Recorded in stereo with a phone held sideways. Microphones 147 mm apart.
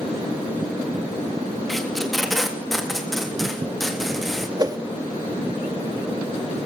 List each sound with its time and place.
1.7 s tape being pulled: centre (ahead or behind), 3 m
4.6 s a whoosh: 25° right (ahead or behind), 1.5 m